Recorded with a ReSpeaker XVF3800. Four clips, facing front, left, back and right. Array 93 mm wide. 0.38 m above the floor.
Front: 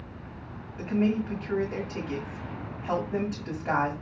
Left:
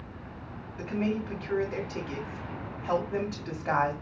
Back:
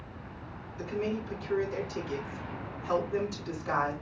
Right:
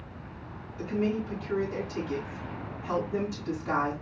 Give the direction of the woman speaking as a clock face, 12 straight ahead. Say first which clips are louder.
Right 1 dB, front 6 dB; 10 o'clock.